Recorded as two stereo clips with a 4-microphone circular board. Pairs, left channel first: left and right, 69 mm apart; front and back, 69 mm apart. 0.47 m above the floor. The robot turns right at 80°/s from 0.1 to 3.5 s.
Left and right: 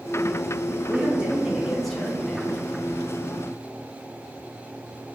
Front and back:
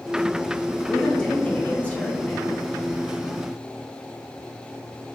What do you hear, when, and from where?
0.9 s a man speaking: 70° right, 0.7 m; by 2.6 s 65° left, 0.7 m